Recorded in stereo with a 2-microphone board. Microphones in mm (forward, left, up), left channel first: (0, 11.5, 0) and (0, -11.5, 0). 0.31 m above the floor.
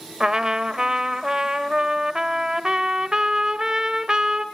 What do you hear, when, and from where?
0.2 s a trumpet: 30° right (ahead or behind), 0.9 m